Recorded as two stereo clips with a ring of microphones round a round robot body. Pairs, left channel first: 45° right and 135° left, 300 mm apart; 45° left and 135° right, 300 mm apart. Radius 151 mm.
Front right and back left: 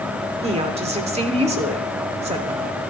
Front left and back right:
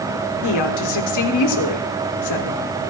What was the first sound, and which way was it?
A woman speaking, 65° left.